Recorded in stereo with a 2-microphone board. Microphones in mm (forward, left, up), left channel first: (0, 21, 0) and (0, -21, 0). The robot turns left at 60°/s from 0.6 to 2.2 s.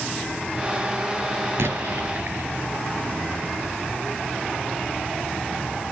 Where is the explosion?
95° right, 4 m; by 2.5 s 130° right, 4 m.